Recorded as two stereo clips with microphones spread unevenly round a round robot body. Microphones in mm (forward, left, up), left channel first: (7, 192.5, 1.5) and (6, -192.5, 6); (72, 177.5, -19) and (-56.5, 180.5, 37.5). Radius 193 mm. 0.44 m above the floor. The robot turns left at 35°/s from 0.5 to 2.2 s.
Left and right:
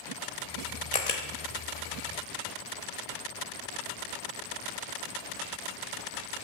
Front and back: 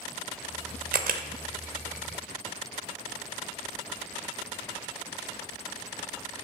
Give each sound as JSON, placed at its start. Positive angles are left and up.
{"t": 0.9, "sound": "a camera shutter", "azimuth_deg": 165, "distance_m": 0.6}